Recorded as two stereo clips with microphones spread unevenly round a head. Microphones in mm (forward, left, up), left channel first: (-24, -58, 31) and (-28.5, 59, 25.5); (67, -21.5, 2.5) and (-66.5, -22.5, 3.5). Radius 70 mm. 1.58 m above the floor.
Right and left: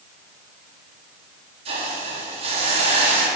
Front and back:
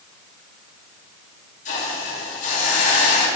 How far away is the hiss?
About 3.5 m.